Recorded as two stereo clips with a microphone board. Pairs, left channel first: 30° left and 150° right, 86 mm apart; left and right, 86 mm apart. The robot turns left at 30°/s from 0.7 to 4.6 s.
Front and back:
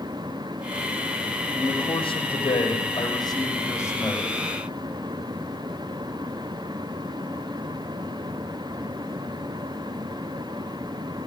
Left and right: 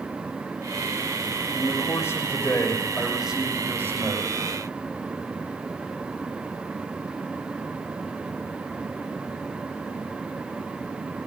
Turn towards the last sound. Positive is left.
turn(degrees=-50)